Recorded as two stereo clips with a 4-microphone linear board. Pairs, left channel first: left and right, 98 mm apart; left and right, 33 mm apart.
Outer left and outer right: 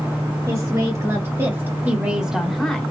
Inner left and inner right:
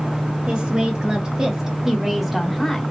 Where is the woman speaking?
45° right (ahead or behind), 1.8 m; by 2.9 s 10° left (ahead or behind), 1.2 m.